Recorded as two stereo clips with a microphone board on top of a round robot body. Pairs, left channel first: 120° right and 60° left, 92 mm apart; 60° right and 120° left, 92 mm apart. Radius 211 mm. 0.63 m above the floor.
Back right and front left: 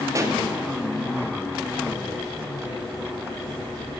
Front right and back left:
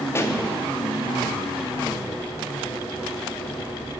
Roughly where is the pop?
Ahead.